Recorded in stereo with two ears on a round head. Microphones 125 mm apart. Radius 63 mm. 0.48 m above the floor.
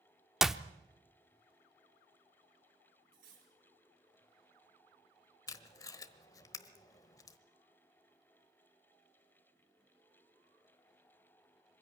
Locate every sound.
0.4 s a clap: 5° right (ahead or behind), 0.6 m
3.1 s cutlery clinking: 70° right (ahead or behind), 5.5 m
5.5 s tape being pulled: 25° left (ahead or behind), 1.1 m